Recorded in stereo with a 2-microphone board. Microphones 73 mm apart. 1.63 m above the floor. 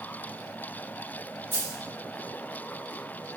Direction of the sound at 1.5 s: 30° right (ahead or behind).